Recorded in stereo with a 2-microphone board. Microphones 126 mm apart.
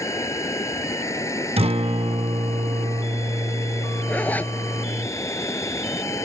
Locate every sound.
0.0 s running water: 20° left (ahead or behind)
1.6 s a guitar: 50° right (ahead or behind)
4.1 s a zipper: 10° left (ahead or behind)